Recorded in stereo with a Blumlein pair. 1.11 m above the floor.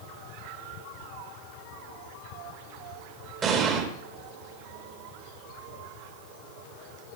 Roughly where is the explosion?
Ahead right.